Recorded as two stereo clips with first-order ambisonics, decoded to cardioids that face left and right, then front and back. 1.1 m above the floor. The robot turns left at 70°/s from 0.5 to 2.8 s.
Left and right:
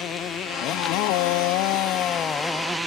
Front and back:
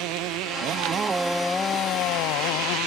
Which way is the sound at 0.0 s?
145° left.